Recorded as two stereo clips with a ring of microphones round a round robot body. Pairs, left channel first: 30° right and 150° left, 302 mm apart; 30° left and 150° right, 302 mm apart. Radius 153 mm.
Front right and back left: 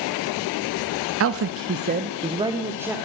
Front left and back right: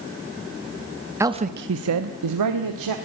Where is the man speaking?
130° left, 1.1 m; by 3.0 s 125° right, 2.5 m.